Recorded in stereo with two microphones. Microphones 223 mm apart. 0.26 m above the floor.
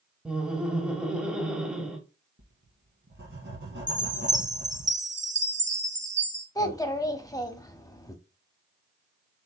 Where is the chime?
55° right (ahead or behind), 1.0 m.